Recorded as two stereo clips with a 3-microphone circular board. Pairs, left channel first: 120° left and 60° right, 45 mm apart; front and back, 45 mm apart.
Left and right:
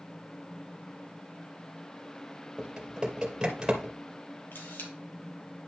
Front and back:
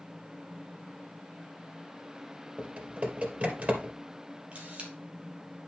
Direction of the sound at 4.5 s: 125° left.